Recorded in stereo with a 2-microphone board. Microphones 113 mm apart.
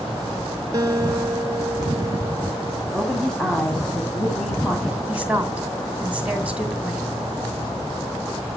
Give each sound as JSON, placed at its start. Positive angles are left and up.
{"t": 0.7, "sound": "a guitar", "side_deg": -35, "distance_m": 0.9}
{"t": 2.9, "sound": "a woman speaking", "side_deg": 5, "distance_m": 2.5}
{"t": 5.1, "sound": "a woman speaking", "side_deg": -10, "distance_m": 2.5}